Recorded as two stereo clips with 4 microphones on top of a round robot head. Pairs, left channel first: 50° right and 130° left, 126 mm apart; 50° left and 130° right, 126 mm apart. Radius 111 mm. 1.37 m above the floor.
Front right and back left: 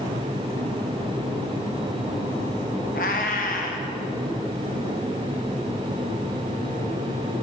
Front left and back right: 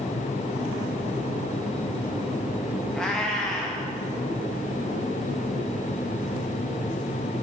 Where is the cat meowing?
35° right, 0.7 m.